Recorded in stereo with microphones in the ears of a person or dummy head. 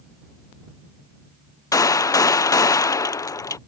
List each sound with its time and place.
1.7 s a gunshot: 20° left (ahead or behind)